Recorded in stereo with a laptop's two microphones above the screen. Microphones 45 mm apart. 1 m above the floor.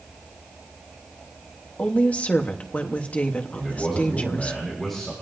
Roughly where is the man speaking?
Centre.